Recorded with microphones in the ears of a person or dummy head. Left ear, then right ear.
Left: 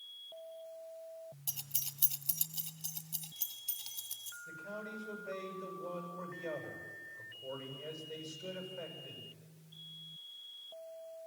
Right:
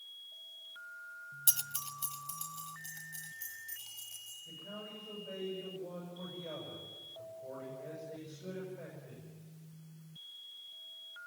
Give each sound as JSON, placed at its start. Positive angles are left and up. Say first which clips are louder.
{"t": 1.5, "sound": "keys jangling", "louder": "right 6 dB", "side_deg": -20, "distance_m": 0.5}
{"t": 4.5, "sound": "a man speaking", "louder": "left 3 dB", "side_deg": 85, "distance_m": 7.5}